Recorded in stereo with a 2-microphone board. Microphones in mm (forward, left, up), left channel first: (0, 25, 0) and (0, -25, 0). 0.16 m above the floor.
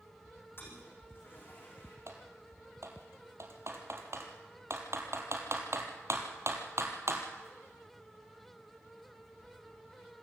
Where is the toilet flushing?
45° left (ahead or behind), 6 m.